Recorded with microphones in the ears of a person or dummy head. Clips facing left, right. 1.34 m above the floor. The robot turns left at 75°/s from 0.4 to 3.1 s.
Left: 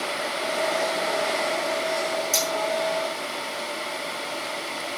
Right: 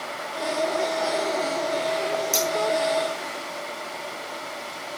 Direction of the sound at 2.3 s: 10° right (ahead or behind).